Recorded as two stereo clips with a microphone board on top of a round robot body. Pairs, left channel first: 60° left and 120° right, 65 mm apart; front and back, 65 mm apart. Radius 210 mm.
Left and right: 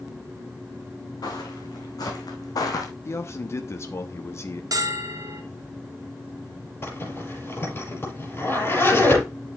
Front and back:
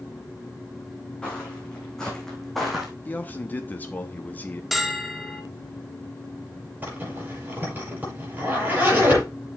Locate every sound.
1.2 s footsteps: 75° left, 3.5 m; by 2.9 s 95° left, 1.7 m
3.0 s a man speaking: 50° left, 1.3 m
4.7 s a bell: 95° right, 1.5 m
6.8 s a zipper: 115° left, 7 m